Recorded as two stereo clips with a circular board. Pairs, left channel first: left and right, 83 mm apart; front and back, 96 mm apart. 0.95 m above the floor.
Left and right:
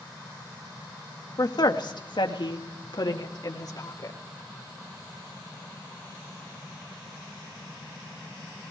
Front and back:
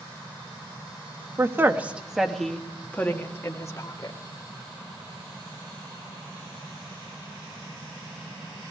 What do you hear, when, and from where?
1.4 s a woman speaking: 120° left, 1.7 m; by 4.2 s 50° left, 2.5 m